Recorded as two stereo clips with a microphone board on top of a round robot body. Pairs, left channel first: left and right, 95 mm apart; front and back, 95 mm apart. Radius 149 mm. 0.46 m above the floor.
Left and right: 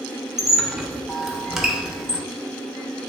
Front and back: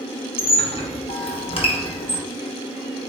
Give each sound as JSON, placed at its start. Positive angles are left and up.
{"t": 0.4, "sound": "a squeak", "azimuth_deg": -5, "distance_m": 1.0}